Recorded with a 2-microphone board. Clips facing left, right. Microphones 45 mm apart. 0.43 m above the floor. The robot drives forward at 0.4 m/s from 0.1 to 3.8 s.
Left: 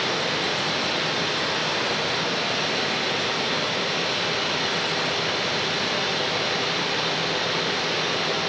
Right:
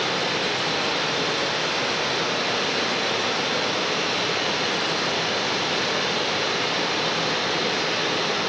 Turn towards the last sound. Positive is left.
turn(degrees=-80)